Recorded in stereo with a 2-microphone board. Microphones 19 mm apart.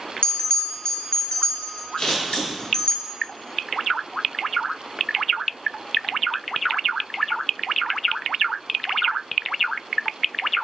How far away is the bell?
About 0.6 m.